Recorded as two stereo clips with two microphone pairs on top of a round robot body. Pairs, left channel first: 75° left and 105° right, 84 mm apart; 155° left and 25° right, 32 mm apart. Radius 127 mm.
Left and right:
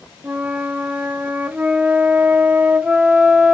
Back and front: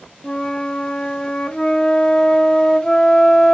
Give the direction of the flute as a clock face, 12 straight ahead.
6 o'clock.